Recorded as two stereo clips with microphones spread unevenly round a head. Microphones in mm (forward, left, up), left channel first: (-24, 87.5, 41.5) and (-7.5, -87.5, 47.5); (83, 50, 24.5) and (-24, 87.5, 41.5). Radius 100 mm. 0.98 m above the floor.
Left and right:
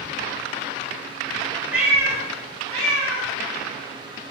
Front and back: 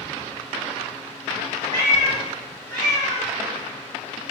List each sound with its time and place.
1.7 s a cat meowing: 165° right, 0.7 m; by 3.3 s 150° right, 3 m